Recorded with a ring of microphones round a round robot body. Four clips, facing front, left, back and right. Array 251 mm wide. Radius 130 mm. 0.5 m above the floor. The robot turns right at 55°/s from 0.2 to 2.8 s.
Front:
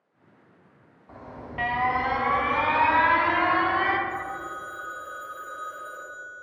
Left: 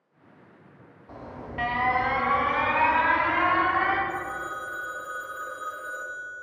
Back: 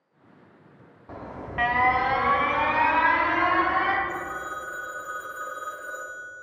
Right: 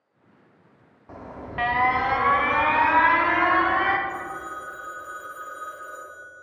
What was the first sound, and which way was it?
An alarm, 165° right.